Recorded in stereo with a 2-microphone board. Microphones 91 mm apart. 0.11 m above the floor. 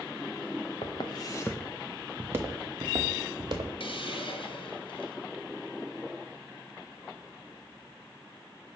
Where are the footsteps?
60° left (ahead or behind), 0.9 m; by 3.7 s 50° right (ahead or behind), 1.6 m.